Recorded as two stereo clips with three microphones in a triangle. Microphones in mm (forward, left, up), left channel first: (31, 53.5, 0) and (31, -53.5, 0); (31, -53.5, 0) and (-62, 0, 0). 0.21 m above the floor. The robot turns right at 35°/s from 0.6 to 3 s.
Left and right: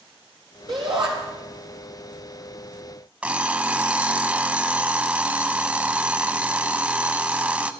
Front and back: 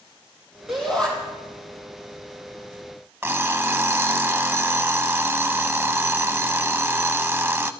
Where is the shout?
120° right, 6 m; by 1.1 s 110° right, 6 m.